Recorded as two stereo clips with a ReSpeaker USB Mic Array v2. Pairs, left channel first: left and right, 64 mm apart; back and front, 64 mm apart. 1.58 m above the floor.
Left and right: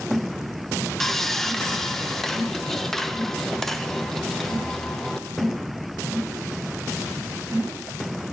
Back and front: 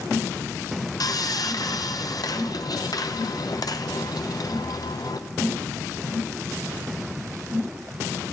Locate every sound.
1.0 s sawing: 175° left, 0.8 m